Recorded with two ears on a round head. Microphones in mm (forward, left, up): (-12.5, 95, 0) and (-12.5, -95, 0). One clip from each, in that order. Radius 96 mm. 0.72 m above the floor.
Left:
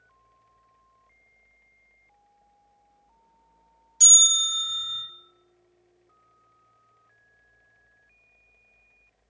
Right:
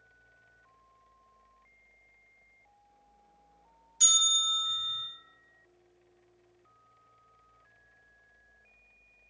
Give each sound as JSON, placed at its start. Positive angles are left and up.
{"t": 4.0, "sound": "a bell", "side_deg": 15, "distance_m": 1.7}